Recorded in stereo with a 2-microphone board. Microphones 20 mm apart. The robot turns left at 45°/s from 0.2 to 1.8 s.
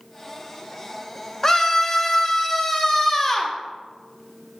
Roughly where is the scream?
Left.